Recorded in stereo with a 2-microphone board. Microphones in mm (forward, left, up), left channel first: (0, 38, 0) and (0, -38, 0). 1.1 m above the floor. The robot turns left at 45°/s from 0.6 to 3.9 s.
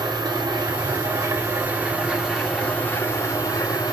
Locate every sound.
0.0 s an engine running: 105° right, 3 m; by 3.9 s 110° left, 3 m